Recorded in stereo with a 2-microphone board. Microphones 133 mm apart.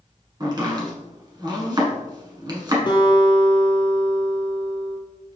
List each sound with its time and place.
0.4 s chopping: 35° right (ahead or behind), 1.1 m
2.9 s a guitar: 40° left (ahead or behind), 1.2 m